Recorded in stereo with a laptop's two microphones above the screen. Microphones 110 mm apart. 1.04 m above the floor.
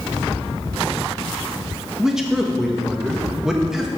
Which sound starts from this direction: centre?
A man speaking, at 2.0 s.